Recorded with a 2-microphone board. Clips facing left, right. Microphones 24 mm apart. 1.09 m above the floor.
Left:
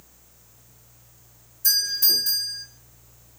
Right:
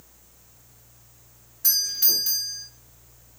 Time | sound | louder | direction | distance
1.6 | a doorbell | left 3 dB | 55° right (ahead or behind) | 5 m